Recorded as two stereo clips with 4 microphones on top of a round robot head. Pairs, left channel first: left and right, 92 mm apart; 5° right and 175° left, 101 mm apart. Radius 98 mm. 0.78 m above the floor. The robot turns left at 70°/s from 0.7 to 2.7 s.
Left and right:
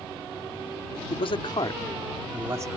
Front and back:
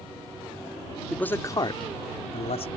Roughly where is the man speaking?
Left.